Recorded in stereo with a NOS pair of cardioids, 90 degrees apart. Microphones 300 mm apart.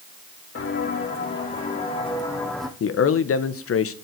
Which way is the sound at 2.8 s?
50° left.